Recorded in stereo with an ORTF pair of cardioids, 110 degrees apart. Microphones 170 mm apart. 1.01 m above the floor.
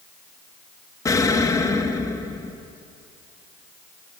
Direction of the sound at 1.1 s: 20° left.